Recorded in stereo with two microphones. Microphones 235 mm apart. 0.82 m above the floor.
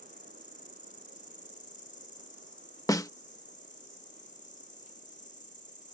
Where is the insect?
35° left (ahead or behind).